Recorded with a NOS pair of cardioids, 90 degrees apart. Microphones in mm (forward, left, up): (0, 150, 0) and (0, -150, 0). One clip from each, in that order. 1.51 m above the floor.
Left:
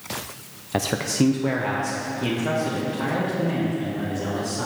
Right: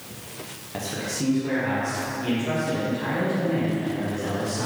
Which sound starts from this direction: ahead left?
A man speaking, at 0.7 s.